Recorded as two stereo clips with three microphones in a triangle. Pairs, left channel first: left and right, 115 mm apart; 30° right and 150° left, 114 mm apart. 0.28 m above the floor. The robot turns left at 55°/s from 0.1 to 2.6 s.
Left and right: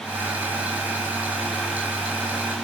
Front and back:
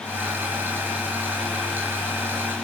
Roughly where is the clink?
No clink in this recording.